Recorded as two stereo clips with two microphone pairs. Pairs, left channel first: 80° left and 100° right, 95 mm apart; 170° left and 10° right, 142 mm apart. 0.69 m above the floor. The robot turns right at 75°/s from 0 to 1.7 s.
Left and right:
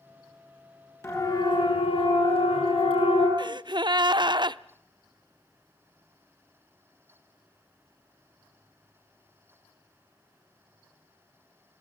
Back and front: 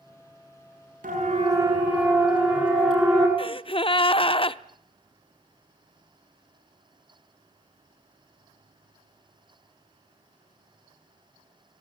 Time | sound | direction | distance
1.0 | a siren | 15° left | 7 m
3.4 | a gasp | 140° right | 0.5 m